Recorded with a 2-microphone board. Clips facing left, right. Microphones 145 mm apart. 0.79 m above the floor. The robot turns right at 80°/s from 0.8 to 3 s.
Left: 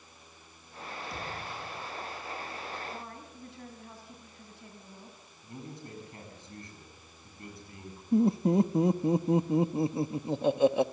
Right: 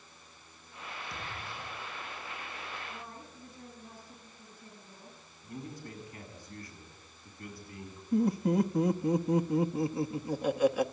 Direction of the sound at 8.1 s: 25° left (ahead or behind).